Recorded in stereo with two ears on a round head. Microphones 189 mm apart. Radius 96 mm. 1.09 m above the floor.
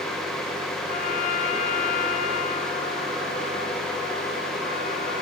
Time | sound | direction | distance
0.8 | a trumpet | 40° left (ahead or behind) | 1.8 m